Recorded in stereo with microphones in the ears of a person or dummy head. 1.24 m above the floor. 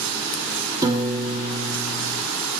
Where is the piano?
15° right (ahead or behind), 0.7 m.